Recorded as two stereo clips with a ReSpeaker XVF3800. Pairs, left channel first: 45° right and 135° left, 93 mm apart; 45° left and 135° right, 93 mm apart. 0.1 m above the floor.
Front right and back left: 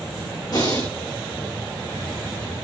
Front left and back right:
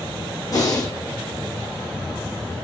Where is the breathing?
5° right, 4 m.